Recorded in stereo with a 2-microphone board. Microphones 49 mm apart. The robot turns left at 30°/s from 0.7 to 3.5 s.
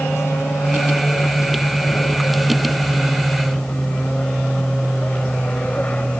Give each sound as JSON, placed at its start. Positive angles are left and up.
{"t": 0.0, "sound": "an aircraft", "azimuth_deg": 115}